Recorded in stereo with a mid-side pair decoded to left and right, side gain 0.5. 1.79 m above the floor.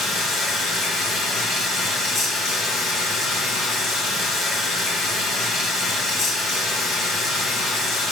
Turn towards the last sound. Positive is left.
turn(degrees=65)